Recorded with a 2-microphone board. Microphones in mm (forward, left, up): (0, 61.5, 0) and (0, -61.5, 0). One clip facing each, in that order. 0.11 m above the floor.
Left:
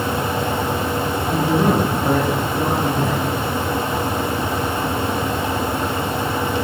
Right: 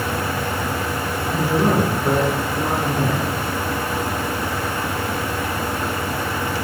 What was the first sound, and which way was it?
A man speaking, 70° left (ahead or behind).